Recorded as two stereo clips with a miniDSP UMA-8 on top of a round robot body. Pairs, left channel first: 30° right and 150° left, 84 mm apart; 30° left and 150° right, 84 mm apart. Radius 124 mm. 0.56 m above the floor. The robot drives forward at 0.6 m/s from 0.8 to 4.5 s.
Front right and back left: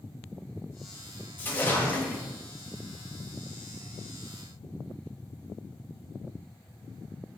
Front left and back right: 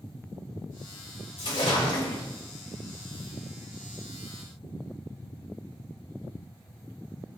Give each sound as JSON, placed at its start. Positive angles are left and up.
{"t": 1.4, "sound": "a splash", "azimuth_deg": 35, "distance_m": 4.5}